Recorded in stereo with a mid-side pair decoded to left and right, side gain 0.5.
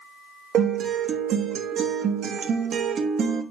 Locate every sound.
0.5 s a guitar: 55° right, 1.2 m